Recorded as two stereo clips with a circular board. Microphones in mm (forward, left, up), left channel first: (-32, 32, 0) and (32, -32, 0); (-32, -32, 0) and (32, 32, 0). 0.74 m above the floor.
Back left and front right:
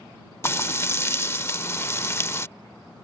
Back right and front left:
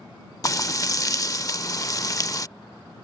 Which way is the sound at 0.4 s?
170° right.